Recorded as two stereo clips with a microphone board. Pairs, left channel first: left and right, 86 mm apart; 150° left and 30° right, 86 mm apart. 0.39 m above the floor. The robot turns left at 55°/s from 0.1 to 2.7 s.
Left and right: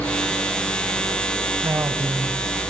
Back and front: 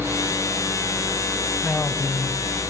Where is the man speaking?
130° right, 3 m; by 2.4 s 170° right, 3 m.